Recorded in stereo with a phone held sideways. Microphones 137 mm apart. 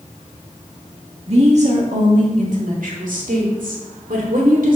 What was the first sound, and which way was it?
A woman speaking, 50° right (ahead or behind).